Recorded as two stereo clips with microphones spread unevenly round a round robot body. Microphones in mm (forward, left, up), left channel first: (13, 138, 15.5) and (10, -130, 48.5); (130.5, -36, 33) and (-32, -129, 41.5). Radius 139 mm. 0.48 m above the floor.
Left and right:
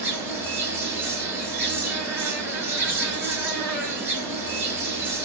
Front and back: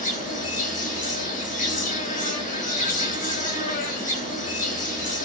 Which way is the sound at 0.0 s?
5° right.